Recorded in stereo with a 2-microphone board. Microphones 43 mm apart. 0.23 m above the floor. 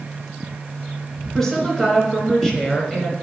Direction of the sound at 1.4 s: 5° left (ahead or behind).